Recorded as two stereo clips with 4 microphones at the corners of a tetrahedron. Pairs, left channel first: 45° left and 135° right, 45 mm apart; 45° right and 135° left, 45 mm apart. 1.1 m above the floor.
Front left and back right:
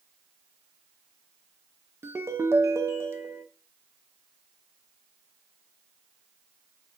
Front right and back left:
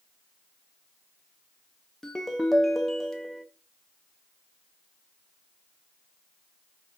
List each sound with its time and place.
2.0 s a ringtone: 130° right, 0.7 m